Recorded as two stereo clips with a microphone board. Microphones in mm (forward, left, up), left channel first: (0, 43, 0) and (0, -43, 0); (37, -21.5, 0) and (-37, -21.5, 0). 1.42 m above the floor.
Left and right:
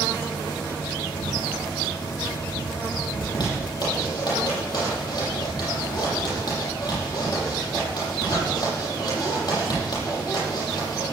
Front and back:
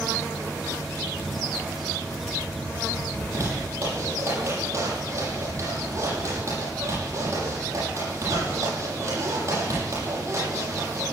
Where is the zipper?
130° left, 10 m.